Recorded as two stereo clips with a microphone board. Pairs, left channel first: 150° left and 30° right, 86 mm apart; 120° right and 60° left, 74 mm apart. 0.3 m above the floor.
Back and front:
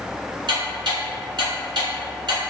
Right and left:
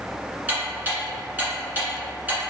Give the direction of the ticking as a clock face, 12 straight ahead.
12 o'clock.